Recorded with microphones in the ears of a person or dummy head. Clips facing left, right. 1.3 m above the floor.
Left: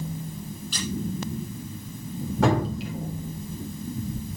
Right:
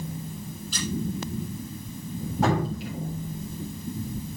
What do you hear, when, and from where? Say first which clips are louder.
0.7 s a squeak: right 1 dB; 65° left (ahead or behind), 5.5 m
2.4 s dripping: left 2 dB; 70° left (ahead or behind), 4 m